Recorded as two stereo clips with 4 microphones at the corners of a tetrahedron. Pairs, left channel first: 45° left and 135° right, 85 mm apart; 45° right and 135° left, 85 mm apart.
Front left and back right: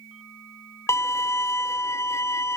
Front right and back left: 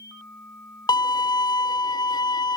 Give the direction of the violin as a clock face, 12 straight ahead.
12 o'clock.